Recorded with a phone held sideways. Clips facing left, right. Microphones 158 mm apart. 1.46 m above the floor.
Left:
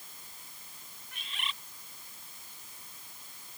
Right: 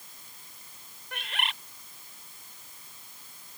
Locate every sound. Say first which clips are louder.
1.1 s a bird: right 7 dB; 85° right